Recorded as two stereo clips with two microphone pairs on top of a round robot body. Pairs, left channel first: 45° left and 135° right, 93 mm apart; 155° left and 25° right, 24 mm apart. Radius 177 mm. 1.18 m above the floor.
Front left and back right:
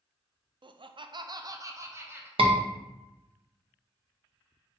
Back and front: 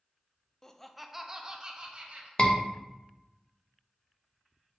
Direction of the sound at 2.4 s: 150° right.